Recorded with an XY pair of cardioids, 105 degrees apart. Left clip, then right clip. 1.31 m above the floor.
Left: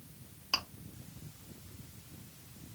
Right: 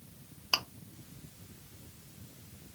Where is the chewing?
65° right, 0.8 m.